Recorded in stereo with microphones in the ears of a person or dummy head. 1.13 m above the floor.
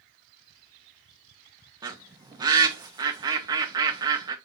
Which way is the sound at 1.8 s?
15° right (ahead or behind).